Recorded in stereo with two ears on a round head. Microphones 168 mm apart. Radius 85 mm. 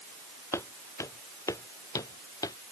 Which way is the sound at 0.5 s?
15° left (ahead or behind).